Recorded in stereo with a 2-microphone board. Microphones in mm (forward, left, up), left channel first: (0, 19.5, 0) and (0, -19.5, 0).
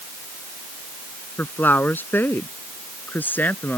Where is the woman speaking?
55° left (ahead or behind); by 3.8 s 45° left (ahead or behind).